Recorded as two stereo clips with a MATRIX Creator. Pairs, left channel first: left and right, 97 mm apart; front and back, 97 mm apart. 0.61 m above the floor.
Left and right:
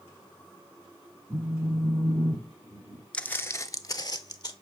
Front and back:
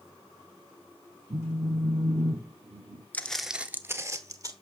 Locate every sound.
1.3 s a phone buzzing: 175° left, 1.5 m
3.1 s footsteps: 30° left, 0.5 m; by 4.5 s 130° left, 1.1 m